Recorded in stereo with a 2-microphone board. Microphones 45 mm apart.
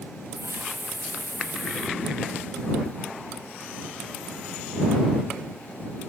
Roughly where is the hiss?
Right.